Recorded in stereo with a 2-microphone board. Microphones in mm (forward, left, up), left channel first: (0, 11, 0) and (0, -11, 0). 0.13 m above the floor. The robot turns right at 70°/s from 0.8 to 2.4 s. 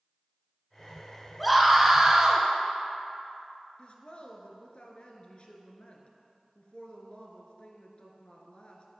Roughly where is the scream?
Behind.